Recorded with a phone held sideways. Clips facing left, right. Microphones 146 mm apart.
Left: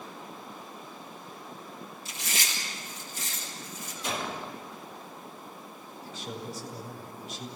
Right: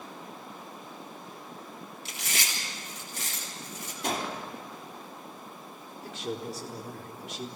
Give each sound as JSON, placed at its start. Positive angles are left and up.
{"t": 2.0, "sound": "chewing", "side_deg": -90, "distance_m": 8.5}
{"t": 4.0, "sound": "a gunshot", "side_deg": -60, "distance_m": 4.0}
{"t": 6.0, "sound": "a man speaking", "side_deg": -80, "distance_m": 4.5}